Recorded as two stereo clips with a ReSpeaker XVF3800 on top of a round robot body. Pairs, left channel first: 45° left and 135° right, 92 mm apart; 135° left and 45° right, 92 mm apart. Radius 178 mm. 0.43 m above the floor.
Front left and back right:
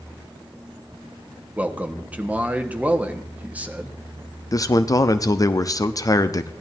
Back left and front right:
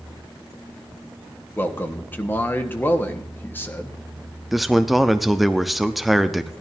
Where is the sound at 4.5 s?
45° left, 0.8 m.